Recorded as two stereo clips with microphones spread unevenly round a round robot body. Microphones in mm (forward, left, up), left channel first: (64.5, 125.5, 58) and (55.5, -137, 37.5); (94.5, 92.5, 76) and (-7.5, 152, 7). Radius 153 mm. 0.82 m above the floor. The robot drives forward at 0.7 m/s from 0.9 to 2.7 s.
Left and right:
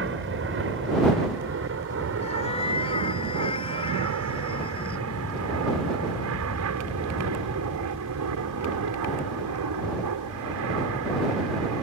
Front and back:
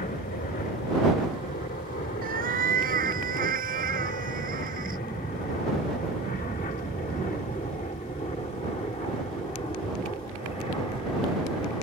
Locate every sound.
0.0 s an aircraft: 55° right; by 11.8 s 110° right
2.2 s a cat meowing: 155° left; by 5.0 s 160° left